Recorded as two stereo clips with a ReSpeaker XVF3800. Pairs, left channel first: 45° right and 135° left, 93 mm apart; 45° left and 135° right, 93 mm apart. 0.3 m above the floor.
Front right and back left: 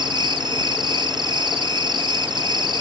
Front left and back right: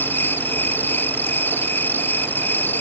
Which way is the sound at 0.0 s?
110° left.